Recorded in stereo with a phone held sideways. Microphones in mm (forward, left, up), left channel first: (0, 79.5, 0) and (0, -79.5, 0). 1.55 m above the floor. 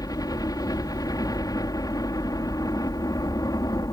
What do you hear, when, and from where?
0.0 s a helicopter: 25° left (ahead or behind)